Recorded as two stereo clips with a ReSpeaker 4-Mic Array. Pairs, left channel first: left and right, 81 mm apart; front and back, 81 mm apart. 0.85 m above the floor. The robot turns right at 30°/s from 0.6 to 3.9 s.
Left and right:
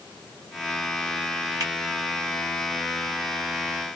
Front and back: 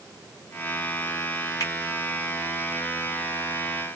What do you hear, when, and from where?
1.6 s a finger snap: 50° right, 2.0 m; by 1.7 s 45° right, 2.0 m